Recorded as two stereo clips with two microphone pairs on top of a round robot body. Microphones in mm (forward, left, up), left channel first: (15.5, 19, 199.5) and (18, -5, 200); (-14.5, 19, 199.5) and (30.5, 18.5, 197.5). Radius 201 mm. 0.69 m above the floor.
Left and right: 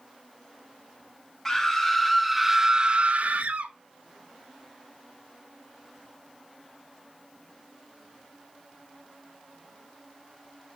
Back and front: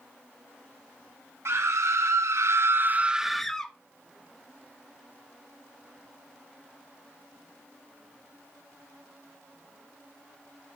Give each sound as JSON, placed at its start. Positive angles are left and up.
{"t": 1.4, "sound": "a scream", "azimuth_deg": 20, "distance_m": 1.7}